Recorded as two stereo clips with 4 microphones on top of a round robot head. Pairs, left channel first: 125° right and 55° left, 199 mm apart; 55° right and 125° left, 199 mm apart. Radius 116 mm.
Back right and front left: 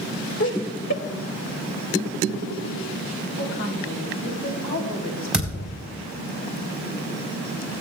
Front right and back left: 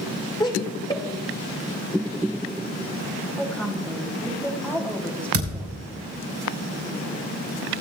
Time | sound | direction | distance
0.4 | laughter | 120° right | 1.8 m
3.4 | a woman speaking | 140° right | 3 m
5.3 | a thud | 140° left | 4 m